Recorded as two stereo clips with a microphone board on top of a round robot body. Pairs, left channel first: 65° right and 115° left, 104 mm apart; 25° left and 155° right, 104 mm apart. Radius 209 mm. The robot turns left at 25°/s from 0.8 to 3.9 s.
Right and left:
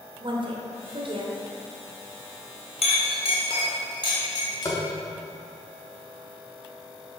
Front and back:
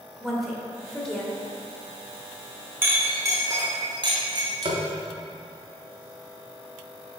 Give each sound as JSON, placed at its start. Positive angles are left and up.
{"t": 0.2, "sound": "a woman speaking", "azimuth_deg": 115, "distance_m": 1.4}
{"t": 2.8, "sound": "a clink", "azimuth_deg": -85, "distance_m": 1.4}
{"t": 4.7, "sound": "tapping", "azimuth_deg": -125, "distance_m": 0.9}